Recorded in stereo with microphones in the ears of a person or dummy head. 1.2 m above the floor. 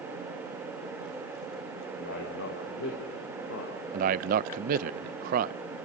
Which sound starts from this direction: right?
A man speaking, at 3.9 s.